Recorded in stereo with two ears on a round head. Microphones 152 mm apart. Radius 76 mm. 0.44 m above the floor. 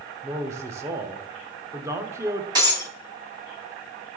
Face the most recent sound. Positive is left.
turn(degrees=-25)  # may be behind; listen again after turning